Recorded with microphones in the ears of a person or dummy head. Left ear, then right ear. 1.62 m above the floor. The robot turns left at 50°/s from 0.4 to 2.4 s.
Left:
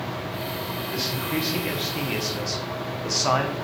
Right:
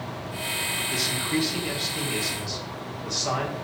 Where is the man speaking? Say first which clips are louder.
Left 2 dB; 155° right, 1.3 m; by 3.5 s 130° left, 1.3 m.